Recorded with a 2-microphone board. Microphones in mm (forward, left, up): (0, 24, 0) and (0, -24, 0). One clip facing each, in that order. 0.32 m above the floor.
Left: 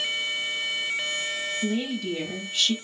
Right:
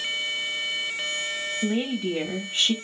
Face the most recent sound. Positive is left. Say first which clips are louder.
# right 4 dB
turn(degrees=-30)  # may be behind; listen again after turning